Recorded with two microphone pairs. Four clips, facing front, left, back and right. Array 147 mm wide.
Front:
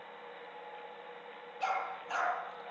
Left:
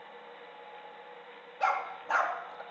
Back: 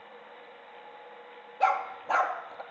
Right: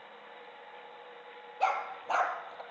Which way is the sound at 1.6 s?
155° right.